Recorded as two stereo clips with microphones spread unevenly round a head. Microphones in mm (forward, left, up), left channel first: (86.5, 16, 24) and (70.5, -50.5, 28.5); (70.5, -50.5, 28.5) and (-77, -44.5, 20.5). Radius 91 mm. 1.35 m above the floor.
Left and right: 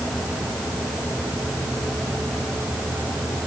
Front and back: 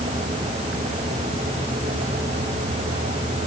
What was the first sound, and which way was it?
Only background noise.